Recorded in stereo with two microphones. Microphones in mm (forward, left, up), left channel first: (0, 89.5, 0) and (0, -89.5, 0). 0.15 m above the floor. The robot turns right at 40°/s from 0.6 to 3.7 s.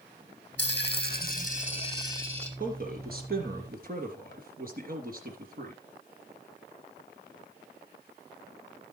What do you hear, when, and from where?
0.6 s a dropped coin: 100° left, 3.5 m; by 2.5 s 175° left, 3.5 m
2.6 s a man speaking: 50° right (ahead or behind), 3 m; by 5.8 s 55° right (ahead or behind), 3 m